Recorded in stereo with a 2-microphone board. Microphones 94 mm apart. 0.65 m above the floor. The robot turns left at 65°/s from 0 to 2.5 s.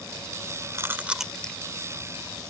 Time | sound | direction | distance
0.7 | chewing | 35° right (ahead or behind) | ?